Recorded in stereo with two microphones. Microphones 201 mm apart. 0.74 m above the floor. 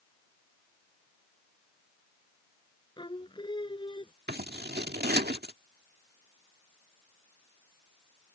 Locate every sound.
3.0 s singing: 25° left (ahead or behind)
4.3 s scissors: 55° right (ahead or behind)